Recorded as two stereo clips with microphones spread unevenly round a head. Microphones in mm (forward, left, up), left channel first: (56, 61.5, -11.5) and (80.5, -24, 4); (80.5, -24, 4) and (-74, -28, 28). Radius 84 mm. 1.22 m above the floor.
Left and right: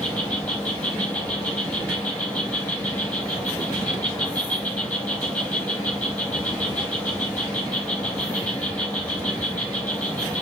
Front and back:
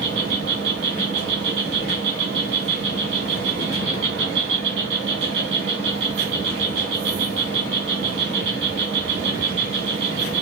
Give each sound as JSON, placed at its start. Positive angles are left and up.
{"t": 0.0, "sound": "an insect", "azimuth_deg": 180, "distance_m": 1.9}